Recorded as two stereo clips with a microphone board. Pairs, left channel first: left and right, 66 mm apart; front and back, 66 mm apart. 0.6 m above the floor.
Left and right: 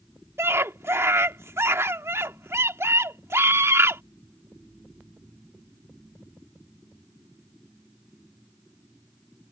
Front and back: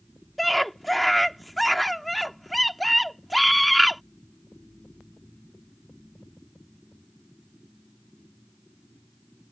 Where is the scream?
90° right.